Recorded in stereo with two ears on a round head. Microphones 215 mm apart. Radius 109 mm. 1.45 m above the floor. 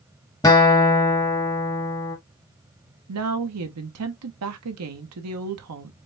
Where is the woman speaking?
75° right (ahead or behind), 0.9 m.